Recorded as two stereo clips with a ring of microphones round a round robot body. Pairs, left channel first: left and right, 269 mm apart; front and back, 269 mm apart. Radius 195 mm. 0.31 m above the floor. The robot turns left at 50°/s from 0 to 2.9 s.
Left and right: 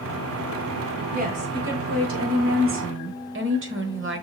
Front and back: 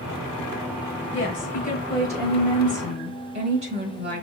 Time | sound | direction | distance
1.1 | a woman speaking | 30° right | 1.3 m